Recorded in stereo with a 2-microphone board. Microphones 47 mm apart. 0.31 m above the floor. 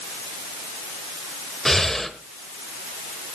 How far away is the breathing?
About 1.2 m.